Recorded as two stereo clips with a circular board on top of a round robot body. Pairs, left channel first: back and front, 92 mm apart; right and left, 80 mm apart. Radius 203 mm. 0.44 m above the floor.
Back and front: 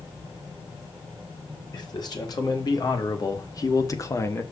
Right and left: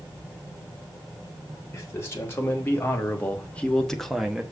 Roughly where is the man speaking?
Behind right.